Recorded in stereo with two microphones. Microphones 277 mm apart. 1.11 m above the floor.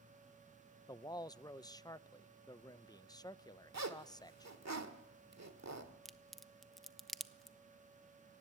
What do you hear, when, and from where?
0.9 s a man speaking: 15° left (ahead or behind), 0.5 m
3.7 s a zipper: 70° right (ahead or behind), 1.5 m
6.0 s a crack: centre (ahead or behind), 0.7 m